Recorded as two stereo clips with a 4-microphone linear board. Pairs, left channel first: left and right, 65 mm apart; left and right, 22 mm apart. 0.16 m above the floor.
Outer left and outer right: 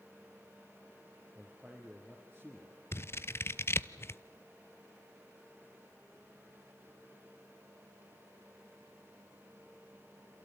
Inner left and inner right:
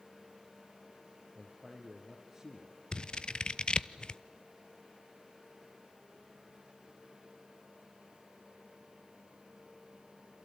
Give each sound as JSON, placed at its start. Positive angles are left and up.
{"t": 1.4, "sound": "a man speaking", "side_deg": 0, "distance_m": 3.5}
{"t": 2.9, "sound": "scissors", "side_deg": 40, "distance_m": 0.7}